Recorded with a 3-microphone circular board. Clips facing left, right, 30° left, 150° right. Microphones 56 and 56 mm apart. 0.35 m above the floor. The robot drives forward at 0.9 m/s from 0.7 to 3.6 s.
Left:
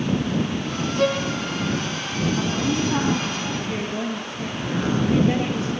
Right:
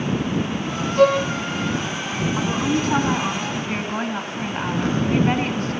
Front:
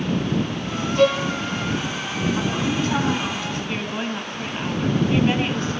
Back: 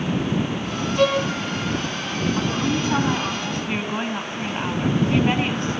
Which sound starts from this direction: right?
A woman speaking, at 2.4 s.